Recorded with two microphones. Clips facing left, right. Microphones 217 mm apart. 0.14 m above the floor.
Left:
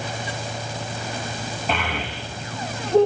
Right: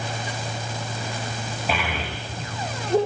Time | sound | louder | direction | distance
1.7 | a child speaking | left 1 dB | 5° right (ahead or behind) | 5.5 m